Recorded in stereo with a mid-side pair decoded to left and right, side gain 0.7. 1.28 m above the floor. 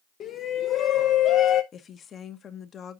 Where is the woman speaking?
35° left, 0.9 m.